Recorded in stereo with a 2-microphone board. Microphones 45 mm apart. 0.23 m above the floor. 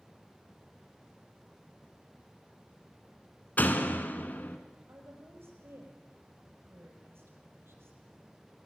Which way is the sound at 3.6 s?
45° left (ahead or behind).